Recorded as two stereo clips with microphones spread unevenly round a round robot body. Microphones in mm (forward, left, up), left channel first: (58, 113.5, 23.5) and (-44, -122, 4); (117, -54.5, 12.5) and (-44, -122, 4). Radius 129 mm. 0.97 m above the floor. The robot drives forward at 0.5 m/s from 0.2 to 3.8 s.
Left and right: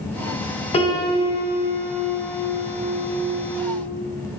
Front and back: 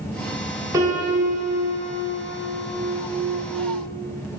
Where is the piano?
125° left, 1.2 m; by 3.8 s 160° left, 2.5 m.